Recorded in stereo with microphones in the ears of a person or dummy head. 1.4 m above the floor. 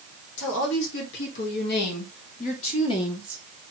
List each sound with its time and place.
0.4 s a woman speaking: 75° left (ahead or behind), 2 m; by 3.4 s 15° left (ahead or behind), 1.0 m